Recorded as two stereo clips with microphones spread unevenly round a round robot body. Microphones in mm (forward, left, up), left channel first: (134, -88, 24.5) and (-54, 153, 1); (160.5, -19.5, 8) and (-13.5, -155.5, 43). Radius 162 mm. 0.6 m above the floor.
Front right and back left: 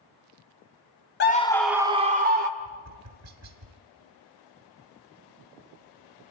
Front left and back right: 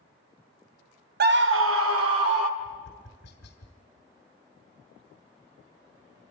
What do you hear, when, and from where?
1.2 s a scream: 105° right, 0.9 m; by 2.5 s 175° right, 1.6 m
2.6 s tapping: 95° left, 2.5 m